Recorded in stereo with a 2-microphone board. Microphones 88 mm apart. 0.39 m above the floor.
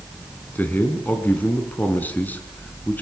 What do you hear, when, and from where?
0.6 s a man speaking: 20° left (ahead or behind), 3.5 m